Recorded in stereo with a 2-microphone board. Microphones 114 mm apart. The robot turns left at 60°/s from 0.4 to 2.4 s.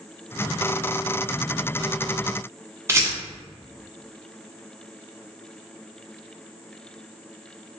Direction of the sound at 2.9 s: 25° right (ahead or behind).